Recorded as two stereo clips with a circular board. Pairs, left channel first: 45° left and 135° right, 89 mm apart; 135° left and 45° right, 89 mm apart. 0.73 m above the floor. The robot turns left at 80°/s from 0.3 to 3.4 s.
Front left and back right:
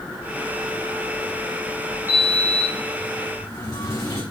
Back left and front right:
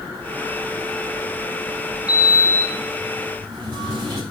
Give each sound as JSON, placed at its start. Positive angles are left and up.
{"t": 2.1, "sound": "a sliding door", "azimuth_deg": 100, "distance_m": 5.5}